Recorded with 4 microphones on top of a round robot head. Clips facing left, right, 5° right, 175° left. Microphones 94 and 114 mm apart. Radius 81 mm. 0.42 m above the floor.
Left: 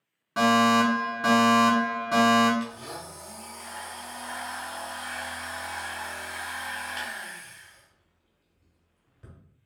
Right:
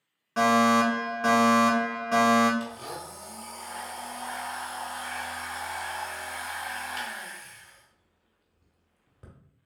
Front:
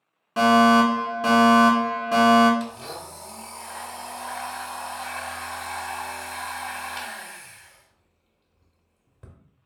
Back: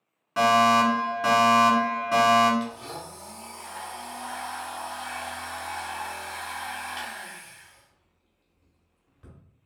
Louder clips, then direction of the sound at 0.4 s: Even, front 3 dB; 25° left.